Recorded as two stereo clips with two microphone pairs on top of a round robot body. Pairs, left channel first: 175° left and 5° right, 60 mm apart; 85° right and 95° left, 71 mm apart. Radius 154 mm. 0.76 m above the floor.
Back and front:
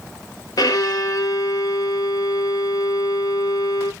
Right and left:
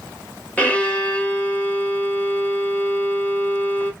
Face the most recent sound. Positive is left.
turn(degrees=-160)